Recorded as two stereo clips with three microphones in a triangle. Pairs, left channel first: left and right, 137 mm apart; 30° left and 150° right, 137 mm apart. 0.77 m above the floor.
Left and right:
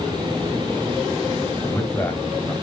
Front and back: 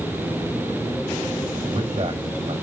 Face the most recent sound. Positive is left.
turn(degrees=165)